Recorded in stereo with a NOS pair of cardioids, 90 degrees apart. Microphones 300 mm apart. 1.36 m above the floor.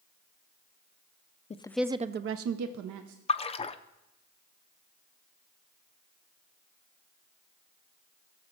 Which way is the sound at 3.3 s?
20° left.